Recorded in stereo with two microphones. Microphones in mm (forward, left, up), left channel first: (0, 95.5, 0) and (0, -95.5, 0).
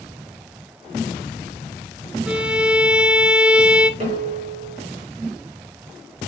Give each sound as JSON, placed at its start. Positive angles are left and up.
{"t": 2.3, "sound": "a violin", "side_deg": -5, "distance_m": 0.8}
{"t": 4.0, "sound": "dishes clattering", "side_deg": -40, "distance_m": 4.0}